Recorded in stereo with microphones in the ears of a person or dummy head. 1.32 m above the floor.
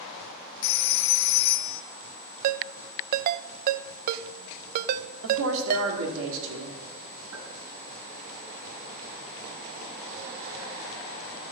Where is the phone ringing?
70° left (ahead or behind), 0.9 m.